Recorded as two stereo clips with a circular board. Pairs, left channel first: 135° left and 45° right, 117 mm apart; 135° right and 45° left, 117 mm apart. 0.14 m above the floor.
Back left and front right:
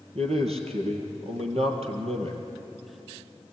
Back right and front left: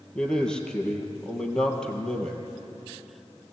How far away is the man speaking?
About 3 m.